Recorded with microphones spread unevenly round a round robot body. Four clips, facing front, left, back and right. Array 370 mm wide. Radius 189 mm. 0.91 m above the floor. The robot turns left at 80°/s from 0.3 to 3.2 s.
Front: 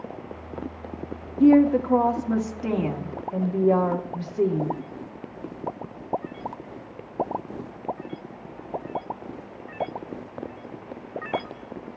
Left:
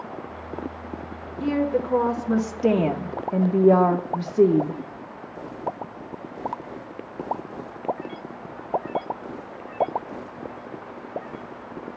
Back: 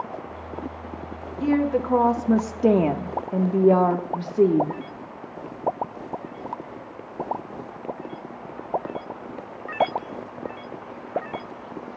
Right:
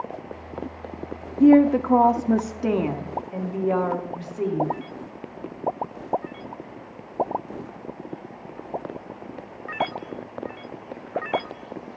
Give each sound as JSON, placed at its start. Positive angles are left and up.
{"t": 1.4, "sound": "a woman speaking", "azimuth_deg": -70, "distance_m": 1.8}